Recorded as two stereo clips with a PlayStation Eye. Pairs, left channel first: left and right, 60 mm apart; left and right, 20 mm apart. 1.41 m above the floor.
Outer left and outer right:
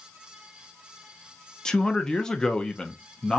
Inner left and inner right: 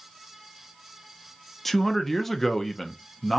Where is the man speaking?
10° left (ahead or behind), 0.6 m.